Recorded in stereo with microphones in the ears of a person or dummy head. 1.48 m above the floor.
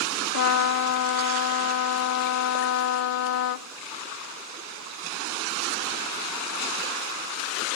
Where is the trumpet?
65° left (ahead or behind), 0.6 m.